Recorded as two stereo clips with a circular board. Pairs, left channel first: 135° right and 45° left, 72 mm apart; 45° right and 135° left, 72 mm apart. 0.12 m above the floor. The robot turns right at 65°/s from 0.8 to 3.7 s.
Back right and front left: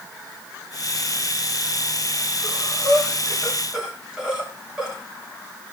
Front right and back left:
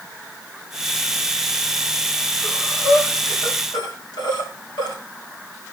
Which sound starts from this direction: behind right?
Breathing, at 2.4 s.